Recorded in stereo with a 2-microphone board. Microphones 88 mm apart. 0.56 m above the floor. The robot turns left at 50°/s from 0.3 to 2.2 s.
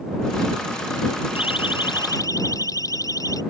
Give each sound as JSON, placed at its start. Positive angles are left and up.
{"t": 1.4, "sound": "a siren", "side_deg": 80}